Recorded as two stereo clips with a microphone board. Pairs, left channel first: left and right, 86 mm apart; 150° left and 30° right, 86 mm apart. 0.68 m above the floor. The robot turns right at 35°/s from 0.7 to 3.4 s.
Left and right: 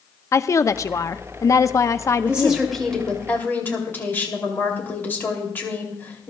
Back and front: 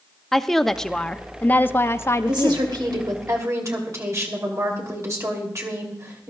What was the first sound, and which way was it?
A woman speaking, 70° left.